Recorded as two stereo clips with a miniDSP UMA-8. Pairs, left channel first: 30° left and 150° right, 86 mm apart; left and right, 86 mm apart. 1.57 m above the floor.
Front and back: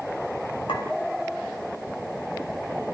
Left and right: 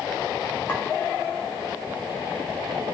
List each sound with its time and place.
0.7 s a clink: 20° left, 5 m